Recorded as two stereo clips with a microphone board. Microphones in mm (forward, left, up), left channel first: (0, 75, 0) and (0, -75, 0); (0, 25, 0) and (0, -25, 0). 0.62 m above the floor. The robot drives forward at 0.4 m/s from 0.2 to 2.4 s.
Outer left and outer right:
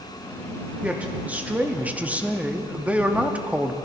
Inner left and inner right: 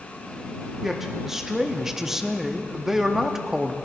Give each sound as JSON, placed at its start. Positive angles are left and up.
{"t": 0.8, "sound": "a man speaking", "side_deg": -10, "distance_m": 0.7}